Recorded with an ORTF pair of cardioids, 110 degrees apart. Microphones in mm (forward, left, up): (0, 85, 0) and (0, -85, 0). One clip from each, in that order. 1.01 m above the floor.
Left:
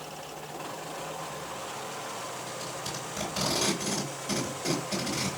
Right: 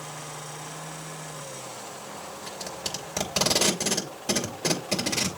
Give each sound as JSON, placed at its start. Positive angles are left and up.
{"t": 2.5, "sound": "tape being pulled", "azimuth_deg": -55, "distance_m": 2.5}